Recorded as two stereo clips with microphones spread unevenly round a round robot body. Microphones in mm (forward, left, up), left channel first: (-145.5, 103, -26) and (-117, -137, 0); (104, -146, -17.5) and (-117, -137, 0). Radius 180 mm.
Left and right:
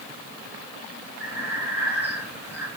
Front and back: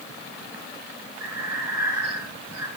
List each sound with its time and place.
1.2 s breathing: 140° left, 3 m